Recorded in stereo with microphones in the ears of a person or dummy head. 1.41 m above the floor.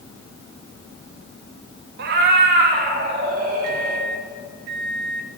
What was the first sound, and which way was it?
A cat meowing, 55° right (ahead or behind).